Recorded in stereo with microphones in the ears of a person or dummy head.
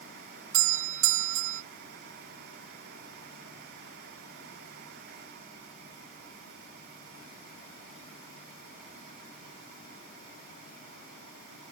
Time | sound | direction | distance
0.5 | a doorbell | 75° right (ahead or behind) | ?